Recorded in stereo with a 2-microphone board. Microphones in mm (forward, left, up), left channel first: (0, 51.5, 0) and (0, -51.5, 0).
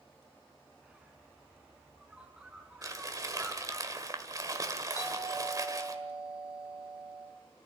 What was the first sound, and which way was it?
A bird, 10° right (ahead or behind).